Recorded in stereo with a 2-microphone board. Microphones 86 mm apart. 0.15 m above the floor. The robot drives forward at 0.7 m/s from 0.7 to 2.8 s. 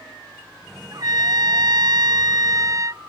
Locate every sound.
0.9 s a trumpet: 45° right (ahead or behind); by 3.0 s 40° right (ahead or behind)